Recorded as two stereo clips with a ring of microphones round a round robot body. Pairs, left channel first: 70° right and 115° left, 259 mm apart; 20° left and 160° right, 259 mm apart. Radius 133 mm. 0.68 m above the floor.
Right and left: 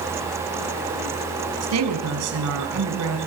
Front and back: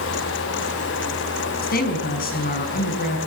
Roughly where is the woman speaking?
Left.